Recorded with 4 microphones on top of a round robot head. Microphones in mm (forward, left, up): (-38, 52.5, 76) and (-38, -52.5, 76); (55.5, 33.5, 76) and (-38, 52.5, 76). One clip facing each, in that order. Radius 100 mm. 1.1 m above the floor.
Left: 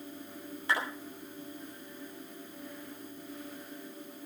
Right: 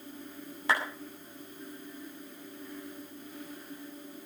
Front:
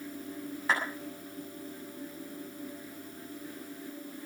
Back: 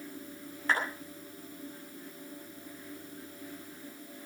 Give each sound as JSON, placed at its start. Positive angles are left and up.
{"t": 0.7, "sound": "a clap", "azimuth_deg": -100, "distance_m": 8.0}